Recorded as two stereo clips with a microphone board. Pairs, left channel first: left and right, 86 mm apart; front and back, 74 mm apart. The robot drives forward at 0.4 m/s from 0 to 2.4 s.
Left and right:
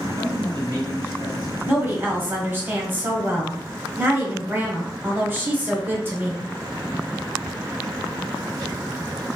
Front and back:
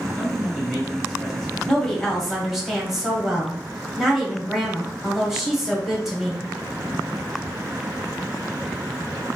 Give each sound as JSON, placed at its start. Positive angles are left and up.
{"t": 0.2, "sound": "a man speaking", "azimuth_deg": -80, "distance_m": 1.8}
{"t": 1.7, "sound": "a woman speaking", "azimuth_deg": -65, "distance_m": 1.1}